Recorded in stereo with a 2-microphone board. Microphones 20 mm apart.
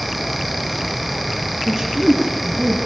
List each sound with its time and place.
1.7 s a man speaking: centre (ahead or behind), 4.5 m; by 2.8 s 5° right (ahead or behind), 5.5 m